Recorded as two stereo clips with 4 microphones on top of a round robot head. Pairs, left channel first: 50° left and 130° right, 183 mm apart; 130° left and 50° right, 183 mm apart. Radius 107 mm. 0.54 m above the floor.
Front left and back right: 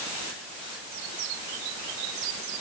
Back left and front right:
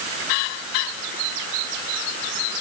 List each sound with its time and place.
Only background noise.